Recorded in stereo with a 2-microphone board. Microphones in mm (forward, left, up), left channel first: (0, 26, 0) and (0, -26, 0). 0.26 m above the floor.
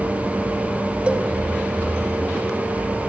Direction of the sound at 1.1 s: 25° right (ahead or behind).